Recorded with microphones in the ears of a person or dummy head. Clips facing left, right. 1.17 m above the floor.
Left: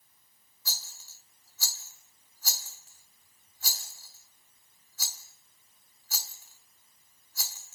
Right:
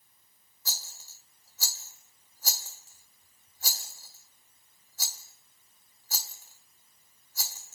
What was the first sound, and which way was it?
A rattle, 40° right (ahead or behind).